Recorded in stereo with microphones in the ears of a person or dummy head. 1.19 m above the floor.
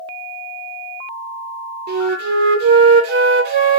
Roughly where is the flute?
Right.